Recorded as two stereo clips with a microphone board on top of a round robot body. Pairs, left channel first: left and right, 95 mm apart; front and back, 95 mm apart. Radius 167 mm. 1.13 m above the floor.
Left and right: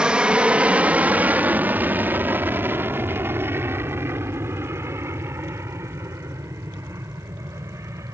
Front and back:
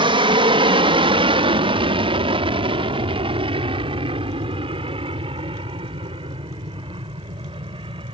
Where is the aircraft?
170° right; by 8.2 s 150° right.